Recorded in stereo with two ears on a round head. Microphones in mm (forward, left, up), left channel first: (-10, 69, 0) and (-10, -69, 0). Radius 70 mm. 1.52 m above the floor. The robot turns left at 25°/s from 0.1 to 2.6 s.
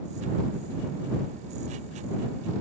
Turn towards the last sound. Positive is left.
No sound to turn to.